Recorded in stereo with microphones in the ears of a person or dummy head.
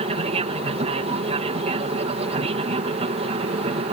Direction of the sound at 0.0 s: 35° right (ahead or behind).